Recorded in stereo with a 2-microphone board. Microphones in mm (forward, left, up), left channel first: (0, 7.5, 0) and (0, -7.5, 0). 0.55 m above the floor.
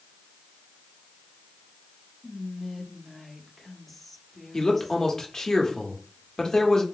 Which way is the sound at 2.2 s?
5° left (ahead or behind).